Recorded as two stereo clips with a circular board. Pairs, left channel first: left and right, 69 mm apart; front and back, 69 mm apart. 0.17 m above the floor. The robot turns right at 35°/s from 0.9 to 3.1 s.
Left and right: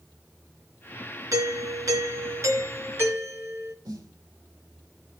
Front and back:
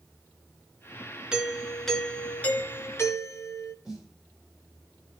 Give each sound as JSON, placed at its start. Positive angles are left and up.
{"t": 1.3, "sound": "a doorbell", "azimuth_deg": -105, "distance_m": 2.5}
{"t": 3.9, "sound": "a snare drum", "azimuth_deg": -100, "distance_m": 4.0}